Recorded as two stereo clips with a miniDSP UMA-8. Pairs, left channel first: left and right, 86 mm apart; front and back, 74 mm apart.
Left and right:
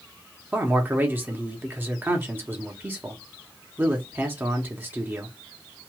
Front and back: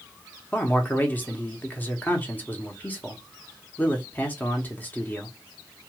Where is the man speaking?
45° right, 0.9 m.